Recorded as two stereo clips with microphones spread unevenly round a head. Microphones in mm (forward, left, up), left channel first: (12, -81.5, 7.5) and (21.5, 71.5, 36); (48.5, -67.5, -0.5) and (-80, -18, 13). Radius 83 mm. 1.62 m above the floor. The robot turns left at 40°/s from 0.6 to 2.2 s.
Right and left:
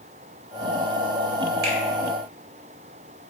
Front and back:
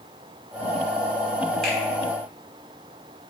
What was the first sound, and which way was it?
A finger snap, 70° left.